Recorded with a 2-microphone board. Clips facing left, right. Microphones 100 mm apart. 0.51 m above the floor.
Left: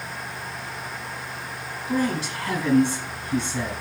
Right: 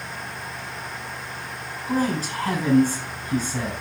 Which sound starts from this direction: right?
A man speaking, at 1.9 s.